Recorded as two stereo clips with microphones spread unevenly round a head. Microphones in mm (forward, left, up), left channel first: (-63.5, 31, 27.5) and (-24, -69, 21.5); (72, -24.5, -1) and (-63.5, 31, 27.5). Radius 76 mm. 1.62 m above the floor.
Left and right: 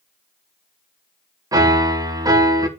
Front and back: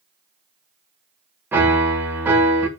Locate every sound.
1.5 s a piano: 125° right, 1.5 m